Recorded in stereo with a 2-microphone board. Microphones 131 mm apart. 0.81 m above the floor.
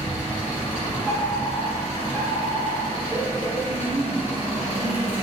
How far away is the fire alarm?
About 1.4 m.